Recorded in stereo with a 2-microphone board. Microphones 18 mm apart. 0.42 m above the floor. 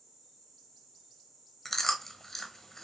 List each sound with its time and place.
1.6 s chewing: 20° left (ahead or behind), 0.7 m